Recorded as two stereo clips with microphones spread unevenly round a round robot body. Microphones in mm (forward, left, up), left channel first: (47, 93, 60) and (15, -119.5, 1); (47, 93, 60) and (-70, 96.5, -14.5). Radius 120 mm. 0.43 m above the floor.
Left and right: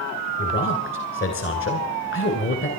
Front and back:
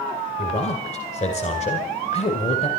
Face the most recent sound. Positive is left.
turn(degrees=35)